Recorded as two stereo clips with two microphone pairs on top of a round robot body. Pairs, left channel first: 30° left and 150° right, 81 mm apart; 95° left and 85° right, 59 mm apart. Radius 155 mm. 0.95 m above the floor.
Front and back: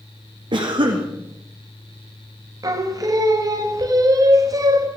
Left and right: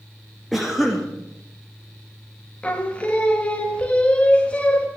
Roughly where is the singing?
Behind.